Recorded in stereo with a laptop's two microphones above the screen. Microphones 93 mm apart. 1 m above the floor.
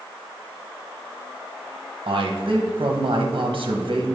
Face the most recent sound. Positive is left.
turn(degrees=-55)  # may be behind; listen again after turning